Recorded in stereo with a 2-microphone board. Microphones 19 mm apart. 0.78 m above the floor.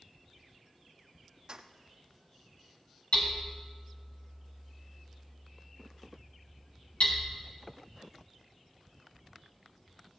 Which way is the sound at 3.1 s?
80° left.